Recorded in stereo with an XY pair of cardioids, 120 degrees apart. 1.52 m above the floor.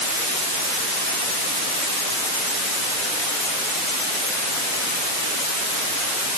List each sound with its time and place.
Only background noise.